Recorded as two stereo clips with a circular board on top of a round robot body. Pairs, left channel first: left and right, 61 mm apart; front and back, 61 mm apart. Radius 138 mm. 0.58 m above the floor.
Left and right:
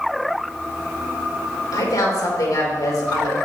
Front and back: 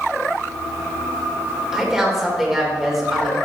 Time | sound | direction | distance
1.7 | a woman speaking | 95° left | 3.5 m